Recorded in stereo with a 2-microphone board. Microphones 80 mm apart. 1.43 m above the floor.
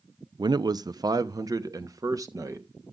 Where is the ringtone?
No ringtone in this recording.